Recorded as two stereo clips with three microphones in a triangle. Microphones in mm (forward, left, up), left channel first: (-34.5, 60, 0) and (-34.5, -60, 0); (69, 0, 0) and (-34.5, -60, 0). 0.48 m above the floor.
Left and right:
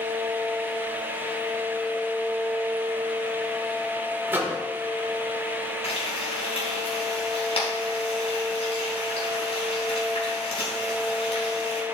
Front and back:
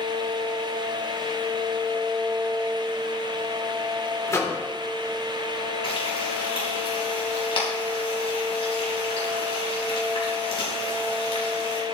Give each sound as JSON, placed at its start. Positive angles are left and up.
{"t": 4.3, "sound": "a microwave", "azimuth_deg": -25, "distance_m": 1.4}
{"t": 5.8, "sound": "frying", "azimuth_deg": 60, "distance_m": 3.5}